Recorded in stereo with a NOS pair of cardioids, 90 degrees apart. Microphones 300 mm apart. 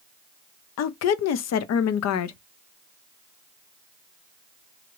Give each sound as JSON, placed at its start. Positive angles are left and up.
{"t": 0.8, "sound": "a woman speaking", "azimuth_deg": 60, "distance_m": 0.6}